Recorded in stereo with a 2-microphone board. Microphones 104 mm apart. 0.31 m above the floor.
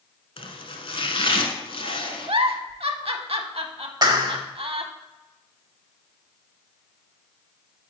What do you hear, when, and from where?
0.4 s chopping: 60° left (ahead or behind), 0.9 m
2.3 s a giggle: 65° right (ahead or behind), 0.6 m
4.0 s a clap: 40° right (ahead or behind), 0.8 m